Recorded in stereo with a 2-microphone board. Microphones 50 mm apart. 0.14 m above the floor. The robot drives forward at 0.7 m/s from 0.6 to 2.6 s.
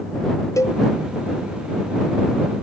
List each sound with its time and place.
0.6 s a cowbell: 80° left